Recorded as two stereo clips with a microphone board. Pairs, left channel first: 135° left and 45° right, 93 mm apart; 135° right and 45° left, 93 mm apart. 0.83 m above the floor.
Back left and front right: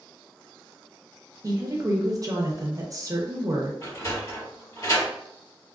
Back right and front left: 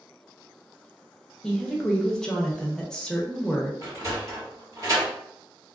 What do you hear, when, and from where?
1.4 s a woman speaking: 55° right, 0.7 m
3.8 s a sliding door: 90° left, 1.8 m